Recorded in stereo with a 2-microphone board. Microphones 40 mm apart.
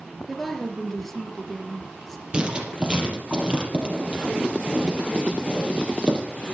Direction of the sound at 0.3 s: 5° left (ahead or behind).